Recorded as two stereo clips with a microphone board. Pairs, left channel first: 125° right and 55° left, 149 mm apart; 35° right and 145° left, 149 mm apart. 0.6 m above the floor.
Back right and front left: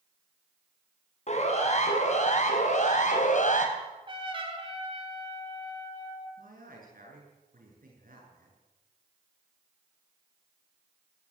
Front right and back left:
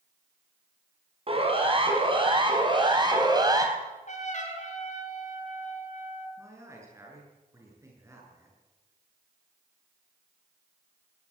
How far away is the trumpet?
About 4.5 m.